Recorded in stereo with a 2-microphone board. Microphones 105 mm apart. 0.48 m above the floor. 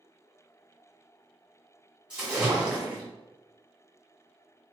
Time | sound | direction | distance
2.1 | a splash | 10° right (ahead or behind) | 2 m